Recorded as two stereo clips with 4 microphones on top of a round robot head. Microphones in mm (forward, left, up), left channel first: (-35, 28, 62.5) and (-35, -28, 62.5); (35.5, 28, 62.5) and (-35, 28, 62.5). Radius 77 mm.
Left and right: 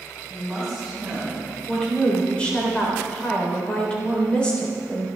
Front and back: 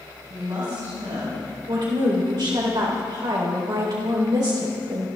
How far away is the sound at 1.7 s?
About 3.5 m.